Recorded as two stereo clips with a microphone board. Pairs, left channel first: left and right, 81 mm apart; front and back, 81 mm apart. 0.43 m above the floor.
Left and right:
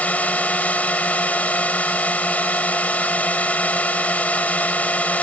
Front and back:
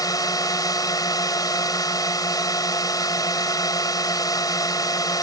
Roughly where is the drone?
Ahead.